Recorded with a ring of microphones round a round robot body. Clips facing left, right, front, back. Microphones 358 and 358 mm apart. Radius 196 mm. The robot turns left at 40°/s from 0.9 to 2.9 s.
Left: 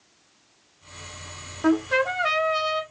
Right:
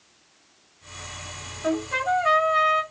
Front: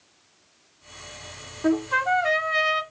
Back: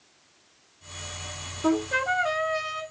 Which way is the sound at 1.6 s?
85° left.